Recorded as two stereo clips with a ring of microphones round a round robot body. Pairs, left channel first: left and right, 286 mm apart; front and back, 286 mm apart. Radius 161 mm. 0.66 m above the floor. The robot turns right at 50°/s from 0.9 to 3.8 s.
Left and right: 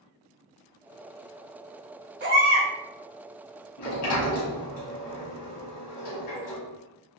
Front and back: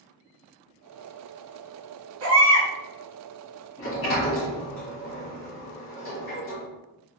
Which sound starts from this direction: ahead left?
A sliding door, at 3.8 s.